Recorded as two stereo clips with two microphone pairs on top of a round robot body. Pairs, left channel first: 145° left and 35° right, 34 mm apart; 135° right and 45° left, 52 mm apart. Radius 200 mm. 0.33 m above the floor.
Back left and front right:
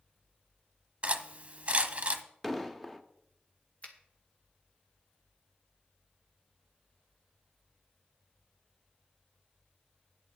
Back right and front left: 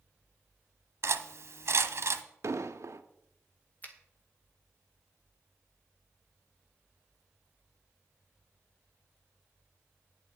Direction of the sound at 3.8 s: Straight behind.